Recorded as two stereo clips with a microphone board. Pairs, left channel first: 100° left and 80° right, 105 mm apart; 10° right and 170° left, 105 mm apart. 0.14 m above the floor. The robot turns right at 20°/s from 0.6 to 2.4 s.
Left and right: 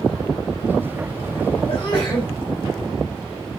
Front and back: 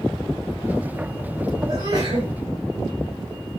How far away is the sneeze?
About 4.5 m.